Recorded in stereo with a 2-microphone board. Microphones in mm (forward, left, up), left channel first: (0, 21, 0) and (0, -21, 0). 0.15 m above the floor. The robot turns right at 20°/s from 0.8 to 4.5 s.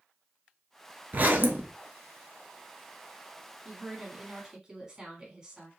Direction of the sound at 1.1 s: 45° right (ahead or behind).